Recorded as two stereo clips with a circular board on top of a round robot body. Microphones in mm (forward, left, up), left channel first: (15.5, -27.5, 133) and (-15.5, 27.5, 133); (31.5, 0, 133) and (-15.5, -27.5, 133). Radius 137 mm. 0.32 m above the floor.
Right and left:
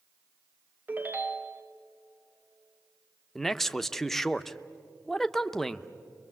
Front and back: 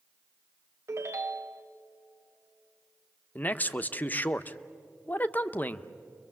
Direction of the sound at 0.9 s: Straight behind.